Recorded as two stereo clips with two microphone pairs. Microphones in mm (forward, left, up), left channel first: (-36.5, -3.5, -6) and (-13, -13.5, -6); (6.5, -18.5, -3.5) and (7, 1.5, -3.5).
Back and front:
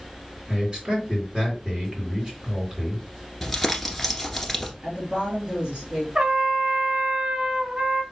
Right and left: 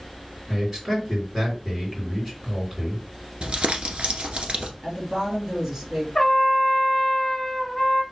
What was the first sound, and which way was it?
A man speaking, 15° left.